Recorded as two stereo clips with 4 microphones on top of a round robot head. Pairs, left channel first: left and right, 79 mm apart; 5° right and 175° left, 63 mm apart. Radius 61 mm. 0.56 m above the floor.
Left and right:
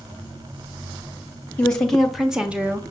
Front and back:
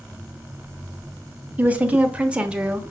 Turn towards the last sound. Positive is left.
turn(degrees=-120)